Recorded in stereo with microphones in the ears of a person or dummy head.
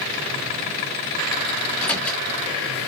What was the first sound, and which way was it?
A microwave, 10° left (ahead or behind).